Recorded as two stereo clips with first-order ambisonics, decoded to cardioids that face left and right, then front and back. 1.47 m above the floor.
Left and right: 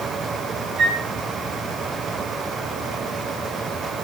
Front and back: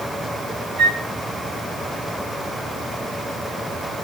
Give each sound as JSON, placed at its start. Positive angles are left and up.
{"t": 0.8, "sound": "a flute", "azimuth_deg": -135, "distance_m": 3.0}